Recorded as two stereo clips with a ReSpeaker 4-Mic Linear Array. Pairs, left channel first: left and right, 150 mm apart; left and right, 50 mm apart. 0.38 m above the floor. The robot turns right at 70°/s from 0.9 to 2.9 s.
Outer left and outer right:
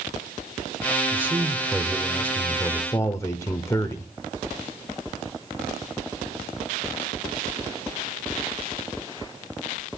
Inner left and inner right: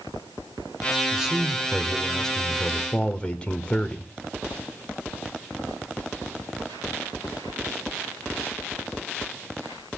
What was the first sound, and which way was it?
A man speaking, 15° right (ahead or behind).